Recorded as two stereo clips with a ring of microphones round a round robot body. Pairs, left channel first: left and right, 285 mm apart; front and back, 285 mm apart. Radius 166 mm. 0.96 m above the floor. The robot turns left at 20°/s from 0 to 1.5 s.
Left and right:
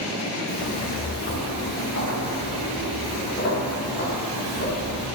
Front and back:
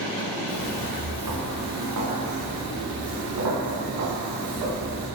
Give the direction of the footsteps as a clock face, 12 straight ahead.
7 o'clock.